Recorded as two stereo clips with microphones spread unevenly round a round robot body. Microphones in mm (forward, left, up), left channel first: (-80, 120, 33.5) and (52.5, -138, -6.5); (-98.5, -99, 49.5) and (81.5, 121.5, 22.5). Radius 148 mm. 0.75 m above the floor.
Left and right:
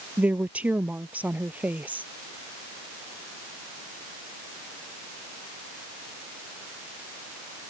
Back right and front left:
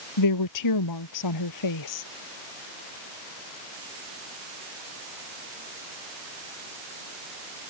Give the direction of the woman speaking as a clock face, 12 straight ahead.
5 o'clock.